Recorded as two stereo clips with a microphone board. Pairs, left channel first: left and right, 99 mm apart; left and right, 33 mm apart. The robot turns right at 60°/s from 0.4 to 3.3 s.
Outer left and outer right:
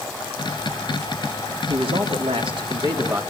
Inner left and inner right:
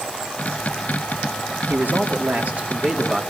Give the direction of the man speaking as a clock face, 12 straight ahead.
4 o'clock.